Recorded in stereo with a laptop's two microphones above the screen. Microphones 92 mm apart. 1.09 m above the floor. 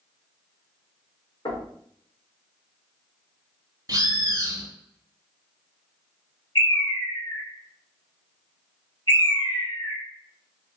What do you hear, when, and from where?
1.4 s knocking: 65° left (ahead or behind), 1.5 m
3.9 s a bird: 35° right (ahead or behind), 0.7 m
6.5 s a bird: 55° left (ahead or behind), 1.3 m